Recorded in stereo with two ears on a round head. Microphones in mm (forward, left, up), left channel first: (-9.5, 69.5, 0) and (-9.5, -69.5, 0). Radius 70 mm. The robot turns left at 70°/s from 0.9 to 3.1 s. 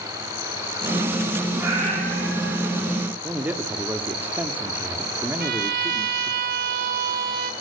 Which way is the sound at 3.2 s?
10° right (ahead or behind).